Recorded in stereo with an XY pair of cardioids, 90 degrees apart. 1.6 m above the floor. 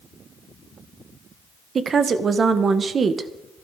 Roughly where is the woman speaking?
Ahead right.